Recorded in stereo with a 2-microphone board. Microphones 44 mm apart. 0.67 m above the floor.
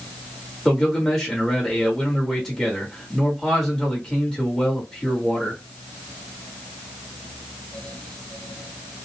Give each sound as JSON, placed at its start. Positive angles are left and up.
{"t": 0.7, "sound": "a man speaking", "side_deg": 20, "distance_m": 1.6}